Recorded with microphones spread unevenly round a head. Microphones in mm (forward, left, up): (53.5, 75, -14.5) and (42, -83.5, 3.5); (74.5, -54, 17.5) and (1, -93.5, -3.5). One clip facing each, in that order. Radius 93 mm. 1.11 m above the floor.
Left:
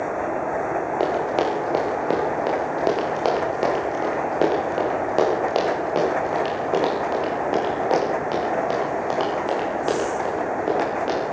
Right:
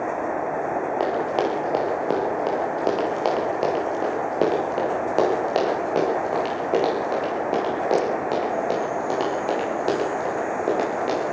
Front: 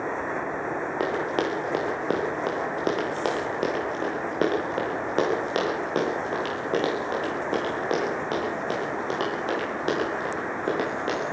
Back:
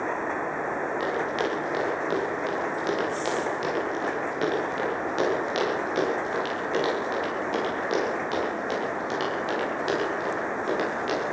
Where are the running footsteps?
Straight ahead, 9 m; by 11.2 s 15° right, 14.5 m.